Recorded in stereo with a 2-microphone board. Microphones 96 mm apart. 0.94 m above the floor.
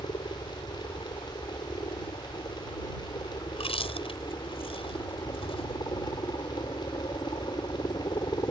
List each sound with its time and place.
0.0 s a helicopter: 55° left (ahead or behind); by 8.5 s 45° left (ahead or behind)
3.5 s chewing: 80° left